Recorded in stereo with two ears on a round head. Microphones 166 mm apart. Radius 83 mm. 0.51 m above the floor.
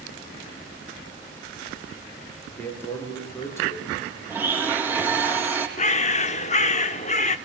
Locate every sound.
2.6 s a man speaking: 10° left (ahead or behind), 8 m; by 4.0 s 15° left (ahead or behind), 7.5 m
4.3 s a blender: 10° right (ahead or behind), 4.5 m
5.8 s a bird: 40° left (ahead or behind), 1.1 m